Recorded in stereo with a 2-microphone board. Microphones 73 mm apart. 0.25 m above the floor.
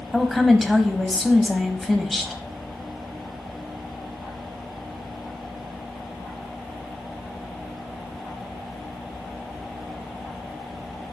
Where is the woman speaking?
Centre (ahead or behind), 1.1 m.